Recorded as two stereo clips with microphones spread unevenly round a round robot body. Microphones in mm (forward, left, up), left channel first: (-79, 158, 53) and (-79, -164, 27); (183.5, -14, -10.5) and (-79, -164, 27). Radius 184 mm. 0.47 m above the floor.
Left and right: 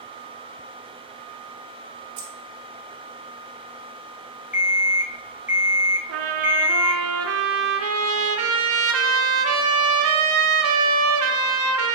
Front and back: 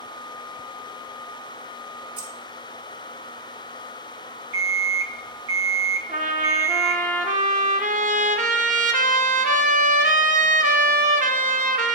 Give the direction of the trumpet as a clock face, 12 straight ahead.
3 o'clock.